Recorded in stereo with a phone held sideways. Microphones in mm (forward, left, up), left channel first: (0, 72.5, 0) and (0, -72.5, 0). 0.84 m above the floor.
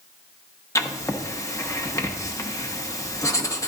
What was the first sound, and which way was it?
Writing, 20° left (ahead or behind).